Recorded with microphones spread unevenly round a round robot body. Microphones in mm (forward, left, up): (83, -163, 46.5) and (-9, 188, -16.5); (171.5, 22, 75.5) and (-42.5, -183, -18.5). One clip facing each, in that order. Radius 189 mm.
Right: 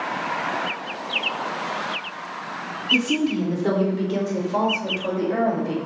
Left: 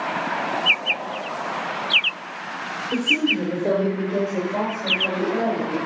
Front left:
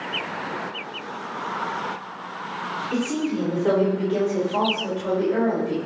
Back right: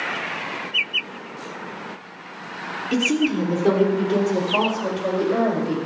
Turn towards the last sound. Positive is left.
turn(degrees=-130)